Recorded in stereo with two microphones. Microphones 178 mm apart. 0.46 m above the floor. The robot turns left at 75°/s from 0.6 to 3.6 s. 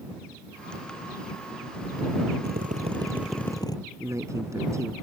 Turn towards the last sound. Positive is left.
turn(degrees=-15)  # may be behind; listen again after turning